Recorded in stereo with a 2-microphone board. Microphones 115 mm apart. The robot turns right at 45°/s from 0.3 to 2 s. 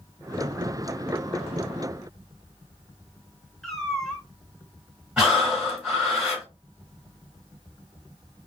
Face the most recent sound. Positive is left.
turn(degrees=-10)  # may be behind; listen again after turning